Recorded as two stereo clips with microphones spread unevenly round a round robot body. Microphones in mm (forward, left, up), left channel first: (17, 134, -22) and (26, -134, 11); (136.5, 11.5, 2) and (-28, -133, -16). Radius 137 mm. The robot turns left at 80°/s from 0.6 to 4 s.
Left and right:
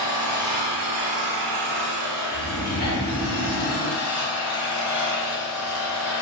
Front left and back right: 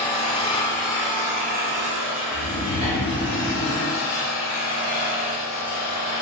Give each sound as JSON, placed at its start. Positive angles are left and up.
{"t": 0.0, "sound": "an engine running", "azimuth_deg": -25, "distance_m": 1.2}
{"t": 2.3, "sound": "snoring", "azimuth_deg": 65, "distance_m": 0.9}